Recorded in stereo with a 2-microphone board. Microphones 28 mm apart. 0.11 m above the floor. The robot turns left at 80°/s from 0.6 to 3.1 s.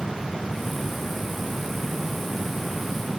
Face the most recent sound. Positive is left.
No sound to turn to.